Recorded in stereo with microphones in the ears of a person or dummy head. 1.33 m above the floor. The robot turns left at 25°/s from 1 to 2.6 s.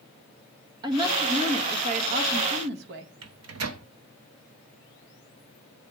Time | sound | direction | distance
0.8 | a woman speaking | 25° right | 1.5 m
3.2 | a microwave | 80° right | 0.9 m